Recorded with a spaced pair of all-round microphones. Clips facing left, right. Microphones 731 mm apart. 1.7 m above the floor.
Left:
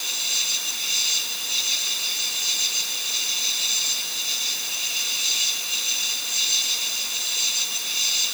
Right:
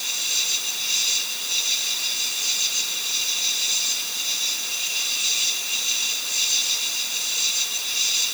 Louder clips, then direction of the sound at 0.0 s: Even; 15° right (ahead or behind).